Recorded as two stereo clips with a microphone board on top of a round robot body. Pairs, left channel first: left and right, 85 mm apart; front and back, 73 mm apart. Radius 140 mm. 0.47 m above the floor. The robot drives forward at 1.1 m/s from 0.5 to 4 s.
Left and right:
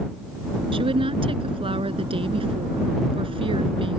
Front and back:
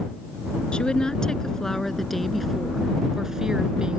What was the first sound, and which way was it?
A woman speaking, 80° right.